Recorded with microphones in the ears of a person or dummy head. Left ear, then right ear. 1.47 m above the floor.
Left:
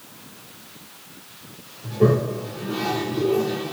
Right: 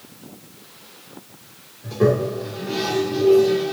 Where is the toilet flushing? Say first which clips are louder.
Right 1 dB; 60° right (ahead or behind), 2 m.